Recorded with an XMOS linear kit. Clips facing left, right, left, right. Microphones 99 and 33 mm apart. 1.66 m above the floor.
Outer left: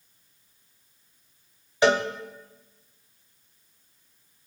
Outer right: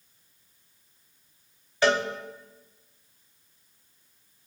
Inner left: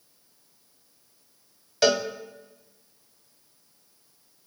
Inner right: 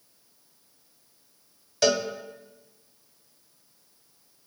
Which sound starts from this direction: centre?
A cowbell, at 1.8 s.